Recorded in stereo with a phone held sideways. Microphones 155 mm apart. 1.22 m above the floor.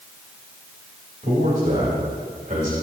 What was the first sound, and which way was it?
A man speaking, 55° right (ahead or behind).